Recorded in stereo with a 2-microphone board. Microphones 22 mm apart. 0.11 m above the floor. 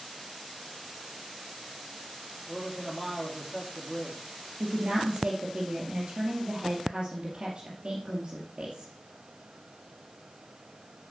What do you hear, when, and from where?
2.5 s a man speaking: centre (ahead or behind), 3 m
4.6 s a woman speaking: 30° right (ahead or behind), 2.5 m